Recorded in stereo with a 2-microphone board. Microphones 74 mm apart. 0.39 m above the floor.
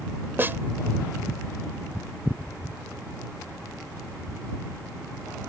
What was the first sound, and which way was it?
A snare drum, 30° right (ahead or behind).